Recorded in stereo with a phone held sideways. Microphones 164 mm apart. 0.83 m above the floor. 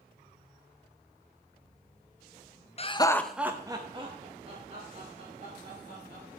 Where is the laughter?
40° left (ahead or behind), 0.6 m; by 6.2 s 45° right (ahead or behind), 3 m.